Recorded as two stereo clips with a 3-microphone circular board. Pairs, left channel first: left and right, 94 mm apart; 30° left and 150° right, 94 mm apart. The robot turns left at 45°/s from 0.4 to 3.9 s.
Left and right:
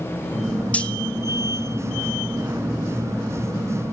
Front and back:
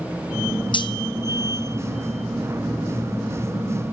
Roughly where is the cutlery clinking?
Ahead.